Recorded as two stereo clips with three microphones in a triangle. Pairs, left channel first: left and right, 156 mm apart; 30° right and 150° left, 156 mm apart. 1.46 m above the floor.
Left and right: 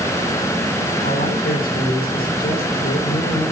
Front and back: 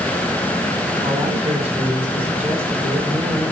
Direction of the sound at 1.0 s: 75° left.